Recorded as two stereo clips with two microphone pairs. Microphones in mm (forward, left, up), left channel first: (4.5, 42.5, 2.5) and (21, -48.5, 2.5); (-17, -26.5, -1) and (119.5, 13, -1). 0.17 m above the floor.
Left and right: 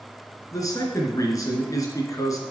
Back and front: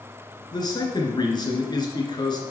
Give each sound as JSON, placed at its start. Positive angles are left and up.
{"t": 0.5, "sound": "a man speaking", "azimuth_deg": 140, "distance_m": 2.5}